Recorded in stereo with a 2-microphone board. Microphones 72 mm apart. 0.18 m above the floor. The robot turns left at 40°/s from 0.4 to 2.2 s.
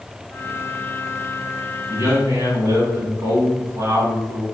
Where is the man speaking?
45° right (ahead or behind), 2 m; by 4.4 s 50° right (ahead or behind), 2 m.